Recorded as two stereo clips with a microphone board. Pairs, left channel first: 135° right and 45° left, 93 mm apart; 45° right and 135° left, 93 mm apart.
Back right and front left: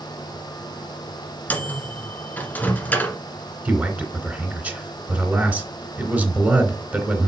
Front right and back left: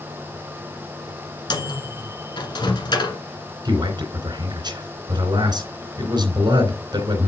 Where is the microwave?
65° right, 1.5 m.